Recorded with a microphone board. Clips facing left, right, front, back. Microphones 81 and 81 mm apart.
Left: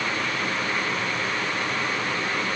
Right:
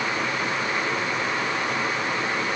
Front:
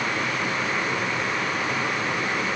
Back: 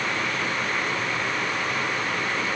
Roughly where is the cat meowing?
I don't hear a cat meowing.